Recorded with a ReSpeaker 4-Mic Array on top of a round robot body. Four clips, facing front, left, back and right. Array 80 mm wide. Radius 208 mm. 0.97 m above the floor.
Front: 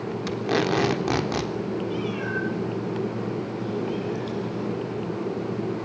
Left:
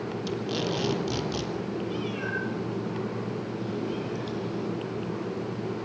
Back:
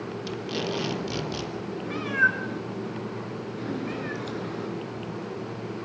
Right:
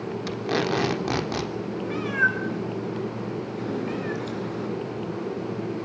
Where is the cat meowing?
130° right, 3 m.